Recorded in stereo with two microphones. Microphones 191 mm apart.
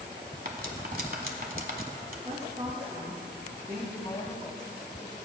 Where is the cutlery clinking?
50° right (ahead or behind), 1.0 m.